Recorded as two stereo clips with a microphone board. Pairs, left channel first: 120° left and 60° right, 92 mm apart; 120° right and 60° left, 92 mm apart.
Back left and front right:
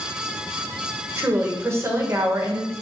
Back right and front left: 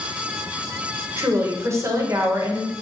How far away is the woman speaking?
About 0.6 m.